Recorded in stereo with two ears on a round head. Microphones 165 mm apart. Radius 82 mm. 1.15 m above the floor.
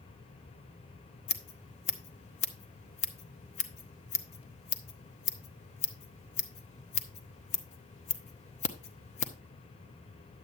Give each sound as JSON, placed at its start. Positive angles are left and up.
{"t": 1.3, "sound": "scissors", "side_deg": 40, "distance_m": 1.0}